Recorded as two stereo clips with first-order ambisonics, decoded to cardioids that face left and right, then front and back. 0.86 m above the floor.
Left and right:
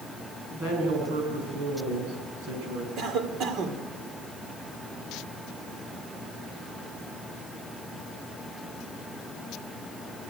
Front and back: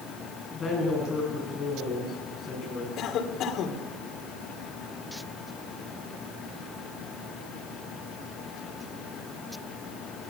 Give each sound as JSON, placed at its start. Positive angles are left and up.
{"t": 0.5, "sound": "a woman speaking", "azimuth_deg": -70, "distance_m": 8.5}
{"t": 3.0, "sound": "a cough", "azimuth_deg": -45, "distance_m": 2.5}